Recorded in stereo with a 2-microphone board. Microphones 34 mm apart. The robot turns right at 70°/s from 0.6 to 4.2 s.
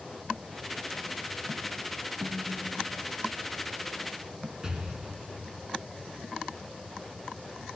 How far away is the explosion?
About 4 m.